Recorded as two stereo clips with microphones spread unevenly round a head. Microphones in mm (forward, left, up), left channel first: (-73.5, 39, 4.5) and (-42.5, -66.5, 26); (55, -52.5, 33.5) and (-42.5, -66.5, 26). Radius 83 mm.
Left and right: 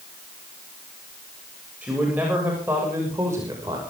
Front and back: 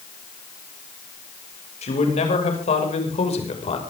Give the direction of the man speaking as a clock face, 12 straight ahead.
12 o'clock.